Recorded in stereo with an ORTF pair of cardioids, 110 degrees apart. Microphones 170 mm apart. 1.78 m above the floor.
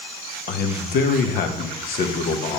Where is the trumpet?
No trumpet in this recording.